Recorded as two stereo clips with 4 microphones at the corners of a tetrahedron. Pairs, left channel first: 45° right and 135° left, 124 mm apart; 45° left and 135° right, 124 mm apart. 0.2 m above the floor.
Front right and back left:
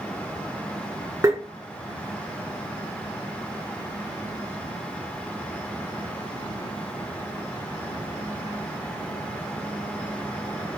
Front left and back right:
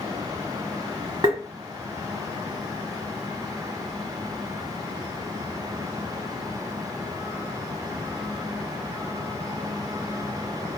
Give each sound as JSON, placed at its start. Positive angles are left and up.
{"t": 1.2, "sound": "tapping", "azimuth_deg": -175, "distance_m": 0.9}